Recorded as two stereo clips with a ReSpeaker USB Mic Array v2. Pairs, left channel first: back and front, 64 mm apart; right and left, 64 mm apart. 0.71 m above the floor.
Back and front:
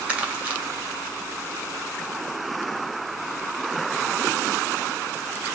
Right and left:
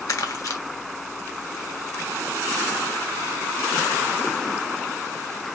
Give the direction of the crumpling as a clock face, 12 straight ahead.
2 o'clock.